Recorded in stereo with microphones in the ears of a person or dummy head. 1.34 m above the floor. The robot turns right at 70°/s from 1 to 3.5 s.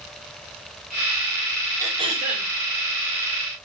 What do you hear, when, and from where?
1.8 s throat clearing: 170° right, 4.5 m; by 2.5 s 120° right, 4.5 m